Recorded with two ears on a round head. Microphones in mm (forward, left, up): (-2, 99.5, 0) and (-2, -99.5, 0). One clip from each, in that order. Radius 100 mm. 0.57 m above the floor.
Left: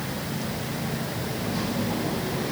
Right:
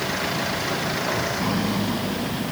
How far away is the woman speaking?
No woman speaking in this recording.